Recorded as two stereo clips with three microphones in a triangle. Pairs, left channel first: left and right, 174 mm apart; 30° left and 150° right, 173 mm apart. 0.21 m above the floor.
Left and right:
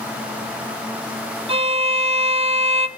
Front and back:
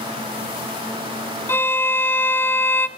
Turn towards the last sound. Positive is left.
turn(degrees=-45)